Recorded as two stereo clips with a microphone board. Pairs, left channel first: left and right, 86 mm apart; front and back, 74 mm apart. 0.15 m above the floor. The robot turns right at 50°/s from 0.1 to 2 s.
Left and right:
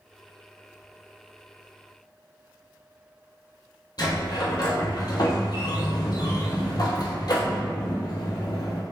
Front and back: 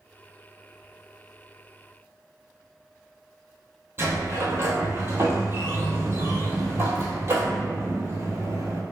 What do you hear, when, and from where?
4.0 s a sliding door: 125° left, 0.7 m